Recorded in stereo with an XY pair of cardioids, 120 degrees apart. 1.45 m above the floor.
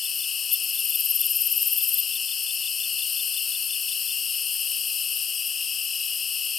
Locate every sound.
0.0 s an insect: 40° left